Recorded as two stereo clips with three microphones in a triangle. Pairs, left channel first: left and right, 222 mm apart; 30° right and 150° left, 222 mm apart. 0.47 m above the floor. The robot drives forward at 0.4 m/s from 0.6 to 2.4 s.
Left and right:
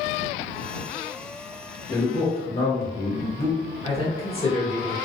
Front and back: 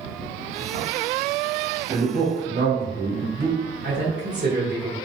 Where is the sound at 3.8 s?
145° left, 1.2 m.